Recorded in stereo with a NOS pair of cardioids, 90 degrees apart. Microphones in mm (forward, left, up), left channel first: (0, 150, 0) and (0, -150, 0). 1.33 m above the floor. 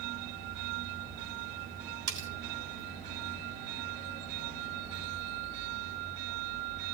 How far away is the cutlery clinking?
About 3.5 m.